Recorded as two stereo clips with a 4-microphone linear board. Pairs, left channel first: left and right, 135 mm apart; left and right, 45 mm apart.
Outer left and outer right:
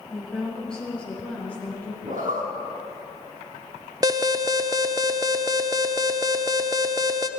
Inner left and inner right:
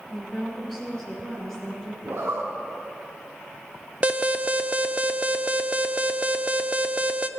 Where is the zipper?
80° right, 4 m.